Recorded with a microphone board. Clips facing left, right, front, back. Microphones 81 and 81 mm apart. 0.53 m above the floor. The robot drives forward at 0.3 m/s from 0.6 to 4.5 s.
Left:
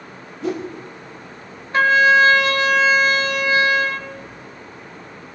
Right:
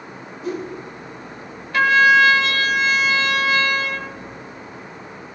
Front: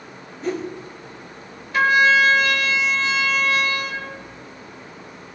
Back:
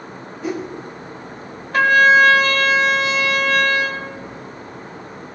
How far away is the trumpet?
About 2 m.